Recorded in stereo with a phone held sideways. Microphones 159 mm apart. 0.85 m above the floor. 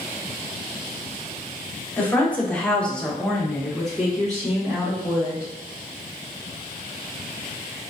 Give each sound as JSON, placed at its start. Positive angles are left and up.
{"t": 2.0, "sound": "a woman speaking", "side_deg": 10, "distance_m": 1.0}